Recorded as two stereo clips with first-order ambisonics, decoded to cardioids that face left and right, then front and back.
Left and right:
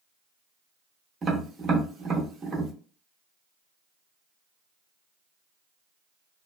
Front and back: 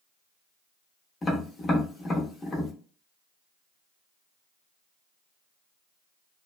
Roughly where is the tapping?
Ahead right.